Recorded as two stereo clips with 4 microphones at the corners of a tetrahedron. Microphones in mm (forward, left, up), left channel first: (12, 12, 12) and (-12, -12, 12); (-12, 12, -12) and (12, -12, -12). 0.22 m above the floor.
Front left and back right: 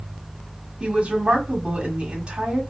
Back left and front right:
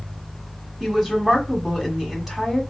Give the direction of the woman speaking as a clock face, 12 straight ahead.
4 o'clock.